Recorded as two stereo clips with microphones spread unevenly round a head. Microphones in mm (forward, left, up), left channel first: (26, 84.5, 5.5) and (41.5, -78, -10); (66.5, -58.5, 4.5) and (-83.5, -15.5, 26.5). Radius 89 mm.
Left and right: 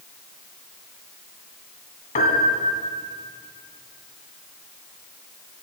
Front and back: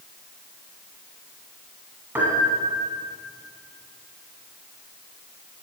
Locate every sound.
2.1 s a piano: 95° left, 1.6 m